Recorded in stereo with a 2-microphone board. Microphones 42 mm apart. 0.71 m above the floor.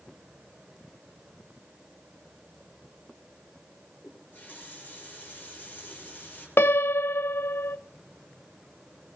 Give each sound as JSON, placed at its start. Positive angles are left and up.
{"t": 4.0, "sound": "a running tap", "side_deg": 35, "distance_m": 7.5}
{"t": 6.6, "sound": "a piano", "side_deg": 60, "distance_m": 0.5}